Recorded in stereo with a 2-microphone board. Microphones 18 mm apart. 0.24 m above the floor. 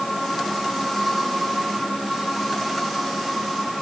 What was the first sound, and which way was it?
Only background noise.